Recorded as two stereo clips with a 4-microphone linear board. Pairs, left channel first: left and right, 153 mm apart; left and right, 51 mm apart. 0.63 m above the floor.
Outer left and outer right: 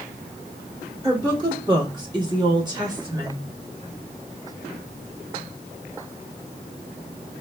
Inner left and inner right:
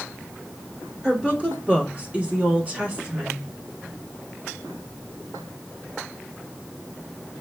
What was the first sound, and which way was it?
A woman speaking, 20° right (ahead or behind).